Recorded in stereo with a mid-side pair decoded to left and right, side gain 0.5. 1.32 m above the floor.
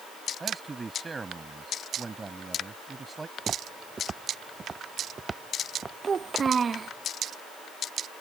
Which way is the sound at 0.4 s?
25° right.